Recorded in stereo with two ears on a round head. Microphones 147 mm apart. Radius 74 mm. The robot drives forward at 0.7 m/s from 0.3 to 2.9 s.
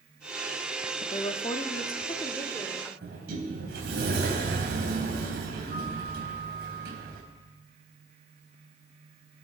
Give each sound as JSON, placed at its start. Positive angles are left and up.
{"t": 1.0, "sound": "a woman speaking", "side_deg": 35, "distance_m": 0.7}
{"t": 3.0, "sound": "a sliding door", "side_deg": -65, "distance_m": 4.0}